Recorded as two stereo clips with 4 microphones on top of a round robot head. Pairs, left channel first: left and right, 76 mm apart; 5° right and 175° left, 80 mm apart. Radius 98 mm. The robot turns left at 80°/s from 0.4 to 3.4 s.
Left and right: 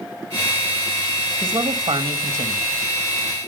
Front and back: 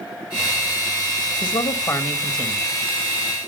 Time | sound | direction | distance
1.4 | a man speaking | 20° right | 1.5 m